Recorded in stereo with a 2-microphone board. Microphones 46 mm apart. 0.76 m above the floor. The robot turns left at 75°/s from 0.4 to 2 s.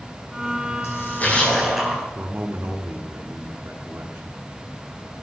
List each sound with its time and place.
0.8 s a splash: 65° left, 5.5 m; by 2.0 s 25° right, 5.5 m
2.1 s a man speaking: 55° right (ahead or behind), 1.3 m